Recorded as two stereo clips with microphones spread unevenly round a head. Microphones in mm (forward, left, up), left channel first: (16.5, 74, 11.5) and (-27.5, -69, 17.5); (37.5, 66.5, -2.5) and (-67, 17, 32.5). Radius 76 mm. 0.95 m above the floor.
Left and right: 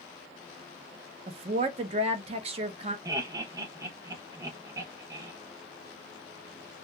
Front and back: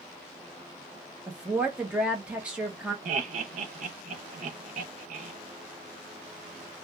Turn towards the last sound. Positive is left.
turn(degrees=-175)